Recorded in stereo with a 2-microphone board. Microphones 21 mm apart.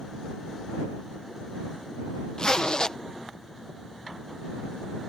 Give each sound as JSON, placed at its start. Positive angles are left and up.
{"t": 2.4, "sound": "a zipper", "side_deg": 40}